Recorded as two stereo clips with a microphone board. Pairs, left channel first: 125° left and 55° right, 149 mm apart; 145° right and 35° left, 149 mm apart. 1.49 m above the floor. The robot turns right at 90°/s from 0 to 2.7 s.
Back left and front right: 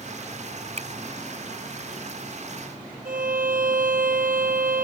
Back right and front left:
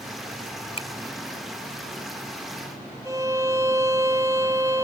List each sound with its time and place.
0.8 s a finger snap: 100° right; by 0.9 s 90° right
3.0 s a violin: 35° right